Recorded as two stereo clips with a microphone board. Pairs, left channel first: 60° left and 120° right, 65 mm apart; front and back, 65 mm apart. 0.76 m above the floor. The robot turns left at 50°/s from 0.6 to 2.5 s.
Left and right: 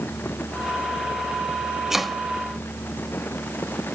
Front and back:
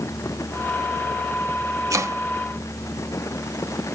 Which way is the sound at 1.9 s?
160° left.